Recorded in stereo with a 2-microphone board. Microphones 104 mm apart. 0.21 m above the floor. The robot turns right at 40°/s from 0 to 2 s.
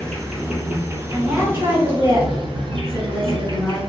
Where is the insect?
170° left, 1.1 m; by 3.9 s 110° right, 1.1 m.